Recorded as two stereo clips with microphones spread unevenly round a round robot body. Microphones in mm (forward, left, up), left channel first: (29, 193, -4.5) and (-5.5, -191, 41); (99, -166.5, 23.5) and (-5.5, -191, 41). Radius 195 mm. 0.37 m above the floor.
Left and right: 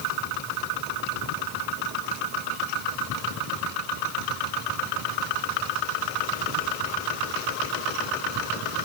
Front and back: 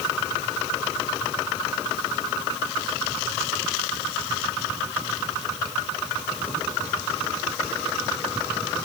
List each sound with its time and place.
Only background noise.